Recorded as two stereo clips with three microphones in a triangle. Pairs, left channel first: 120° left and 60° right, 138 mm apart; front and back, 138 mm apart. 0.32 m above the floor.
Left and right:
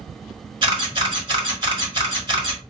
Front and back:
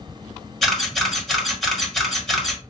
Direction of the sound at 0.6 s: 85° right.